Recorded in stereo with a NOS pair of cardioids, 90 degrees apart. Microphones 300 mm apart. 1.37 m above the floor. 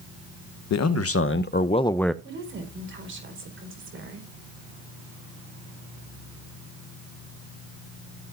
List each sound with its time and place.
0.7 s a man speaking: 60° left, 1.0 m; by 2.1 s straight ahead, 0.7 m
2.2 s a woman speaking: 40° right, 4.5 m